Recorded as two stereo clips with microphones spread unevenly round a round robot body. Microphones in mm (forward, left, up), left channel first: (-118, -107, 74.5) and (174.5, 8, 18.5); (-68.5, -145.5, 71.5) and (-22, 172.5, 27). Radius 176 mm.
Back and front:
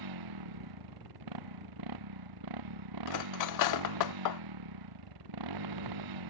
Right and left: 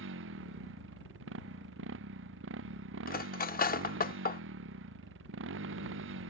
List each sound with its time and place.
0.0 s a motorcycle: 25° left
3.1 s cutlery clinking: 160° right